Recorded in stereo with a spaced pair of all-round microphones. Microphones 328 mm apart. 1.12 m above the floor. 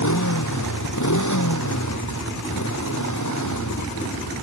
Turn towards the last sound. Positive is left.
turn(degrees=60)  # may be behind; listen again after turning